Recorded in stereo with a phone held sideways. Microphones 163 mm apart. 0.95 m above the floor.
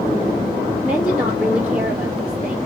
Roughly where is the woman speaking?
Centre.